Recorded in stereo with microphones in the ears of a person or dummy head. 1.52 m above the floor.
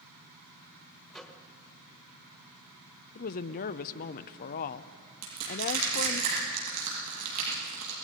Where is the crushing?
80° right, 7.5 m.